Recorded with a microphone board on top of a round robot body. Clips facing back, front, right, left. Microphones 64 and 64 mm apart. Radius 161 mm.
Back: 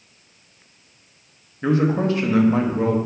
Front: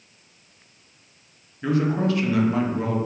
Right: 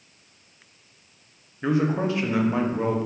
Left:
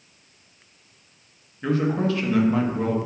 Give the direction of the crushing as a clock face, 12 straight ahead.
I don't hear crushing.